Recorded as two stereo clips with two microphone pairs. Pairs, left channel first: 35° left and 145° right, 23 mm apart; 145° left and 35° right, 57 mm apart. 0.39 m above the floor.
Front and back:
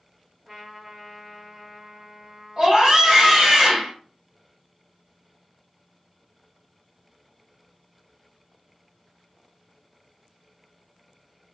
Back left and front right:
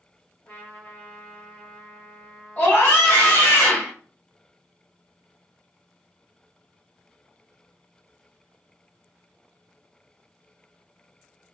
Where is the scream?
155° left, 1.6 m.